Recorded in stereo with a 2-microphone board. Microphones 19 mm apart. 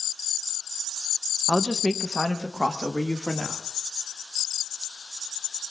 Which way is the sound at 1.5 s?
40° left (ahead or behind).